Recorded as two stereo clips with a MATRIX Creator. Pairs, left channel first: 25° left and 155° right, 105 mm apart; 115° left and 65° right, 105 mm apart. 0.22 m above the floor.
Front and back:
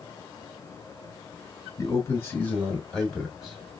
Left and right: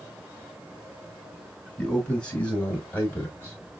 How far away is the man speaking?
About 1.8 m.